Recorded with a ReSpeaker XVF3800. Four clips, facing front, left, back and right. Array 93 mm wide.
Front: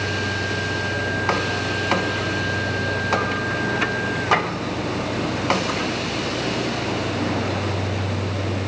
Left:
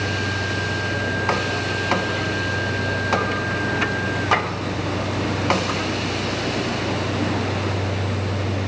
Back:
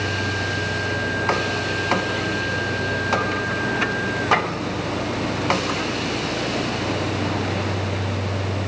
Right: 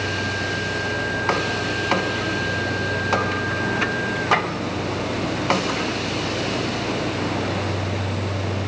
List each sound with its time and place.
Only background noise.